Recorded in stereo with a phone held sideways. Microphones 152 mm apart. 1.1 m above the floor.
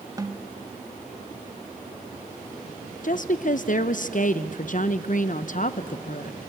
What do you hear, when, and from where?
0.2 s a snare drum: 25° right (ahead or behind), 1.1 m
3.0 s a woman speaking: 60° left (ahead or behind), 0.6 m